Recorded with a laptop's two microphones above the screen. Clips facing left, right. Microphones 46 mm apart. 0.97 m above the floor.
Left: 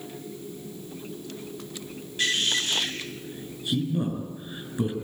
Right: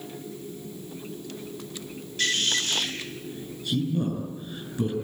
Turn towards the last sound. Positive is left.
turn(degrees=15)  # may be behind; listen again after turning